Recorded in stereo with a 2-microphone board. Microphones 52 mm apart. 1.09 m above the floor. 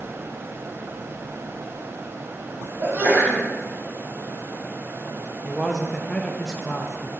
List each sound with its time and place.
2.8 s a sneeze: 40° right (ahead or behind), 2 m
5.4 s a man speaking: centre (ahead or behind), 0.7 m